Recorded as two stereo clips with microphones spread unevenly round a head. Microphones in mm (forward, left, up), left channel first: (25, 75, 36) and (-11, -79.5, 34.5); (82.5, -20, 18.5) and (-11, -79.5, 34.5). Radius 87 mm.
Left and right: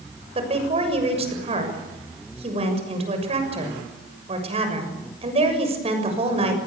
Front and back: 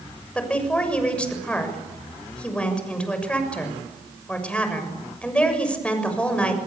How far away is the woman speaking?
About 7 m.